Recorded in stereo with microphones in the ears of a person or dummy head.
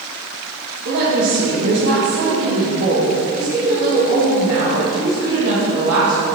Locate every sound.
0.8 s a woman speaking: 60° right (ahead or behind), 2 m